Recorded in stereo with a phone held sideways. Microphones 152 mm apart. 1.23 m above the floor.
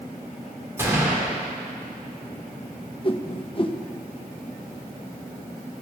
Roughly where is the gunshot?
Centre.